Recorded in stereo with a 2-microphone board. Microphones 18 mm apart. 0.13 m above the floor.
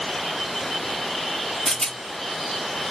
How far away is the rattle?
About 0.8 m.